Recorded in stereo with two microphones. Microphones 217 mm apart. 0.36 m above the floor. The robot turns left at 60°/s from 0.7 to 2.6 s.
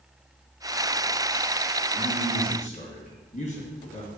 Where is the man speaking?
Straight behind, 2.5 m; by 4.1 s 140° left, 2.5 m.